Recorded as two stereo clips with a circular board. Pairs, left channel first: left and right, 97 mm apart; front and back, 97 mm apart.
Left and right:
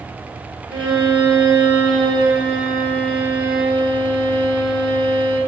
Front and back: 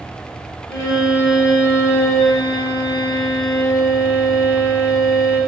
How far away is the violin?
About 4.5 m.